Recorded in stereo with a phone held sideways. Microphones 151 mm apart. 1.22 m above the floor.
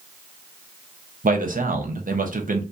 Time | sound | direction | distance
1.2 | a man speaking | 65° right (ahead or behind) | 0.6 m